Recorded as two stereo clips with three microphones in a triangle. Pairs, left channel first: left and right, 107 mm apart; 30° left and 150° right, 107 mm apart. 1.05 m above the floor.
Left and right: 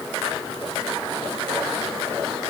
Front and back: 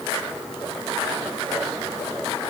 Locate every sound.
Only background noise.